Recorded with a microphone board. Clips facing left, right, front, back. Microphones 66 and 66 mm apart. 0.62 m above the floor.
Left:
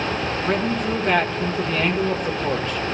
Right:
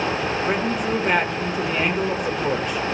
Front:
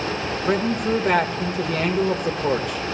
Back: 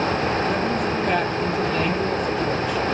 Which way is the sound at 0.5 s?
15° right.